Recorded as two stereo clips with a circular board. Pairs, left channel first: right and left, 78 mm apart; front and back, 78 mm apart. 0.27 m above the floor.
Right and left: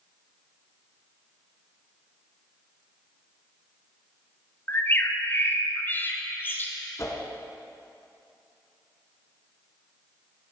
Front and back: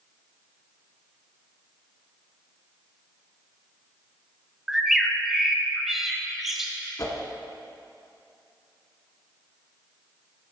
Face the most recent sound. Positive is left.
turn(degrees=-45)